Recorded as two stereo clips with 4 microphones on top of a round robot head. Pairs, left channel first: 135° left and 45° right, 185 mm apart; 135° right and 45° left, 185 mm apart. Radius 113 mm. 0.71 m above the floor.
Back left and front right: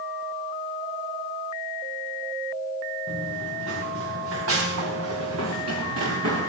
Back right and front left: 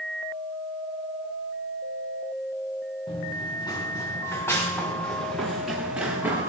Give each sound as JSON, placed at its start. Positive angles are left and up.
{"t": 3.1, "sound": "running footsteps", "azimuth_deg": -70, "distance_m": 5.0}